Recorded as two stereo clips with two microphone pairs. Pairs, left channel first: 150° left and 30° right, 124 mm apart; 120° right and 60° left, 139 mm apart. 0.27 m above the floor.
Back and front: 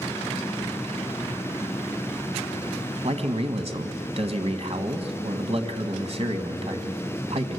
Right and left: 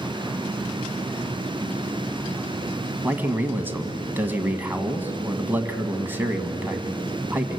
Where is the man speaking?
15° right, 1.7 m.